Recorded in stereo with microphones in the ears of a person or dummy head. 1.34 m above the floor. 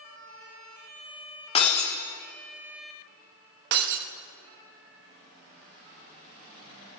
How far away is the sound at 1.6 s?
About 1.1 m.